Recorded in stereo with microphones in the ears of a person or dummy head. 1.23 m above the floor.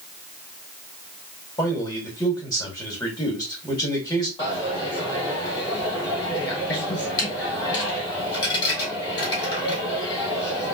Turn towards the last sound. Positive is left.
turn(degrees=25)  # may be behind; listen again after turning